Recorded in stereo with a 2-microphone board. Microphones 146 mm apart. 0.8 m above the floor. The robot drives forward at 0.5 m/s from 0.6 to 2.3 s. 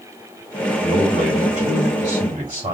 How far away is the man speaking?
About 2.5 m.